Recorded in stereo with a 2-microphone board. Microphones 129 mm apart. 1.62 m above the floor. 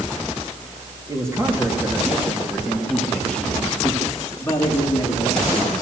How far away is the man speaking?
About 4 m.